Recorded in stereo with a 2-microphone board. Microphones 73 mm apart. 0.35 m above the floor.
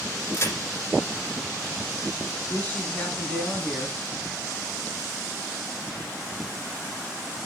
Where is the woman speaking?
20° left (ahead or behind), 3 m.